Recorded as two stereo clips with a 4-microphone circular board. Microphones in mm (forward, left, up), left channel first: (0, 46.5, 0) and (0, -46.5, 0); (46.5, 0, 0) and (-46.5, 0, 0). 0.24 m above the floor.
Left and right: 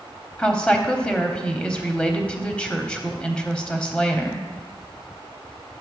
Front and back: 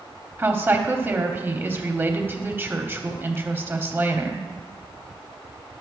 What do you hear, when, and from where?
0.4 s a woman speaking: 155° left, 1.0 m